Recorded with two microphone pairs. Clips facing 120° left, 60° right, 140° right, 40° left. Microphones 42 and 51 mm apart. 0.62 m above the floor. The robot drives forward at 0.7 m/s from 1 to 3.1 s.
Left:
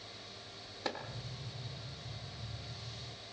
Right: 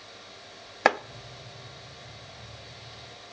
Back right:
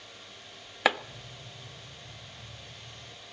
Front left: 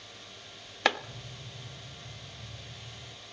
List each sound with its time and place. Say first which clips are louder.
0.8 s chopping: right 17 dB, back right 1 dB; 55° right, 0.6 m